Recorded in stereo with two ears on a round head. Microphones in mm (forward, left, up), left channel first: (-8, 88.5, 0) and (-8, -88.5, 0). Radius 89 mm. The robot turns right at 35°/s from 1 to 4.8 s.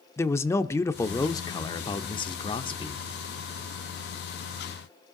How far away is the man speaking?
About 0.8 m.